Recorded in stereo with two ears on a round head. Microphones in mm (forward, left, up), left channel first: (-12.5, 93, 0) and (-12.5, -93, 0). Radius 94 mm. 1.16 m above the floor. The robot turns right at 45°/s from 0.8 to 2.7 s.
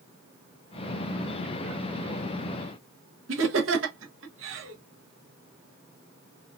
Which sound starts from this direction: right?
Laughter, at 3.3 s.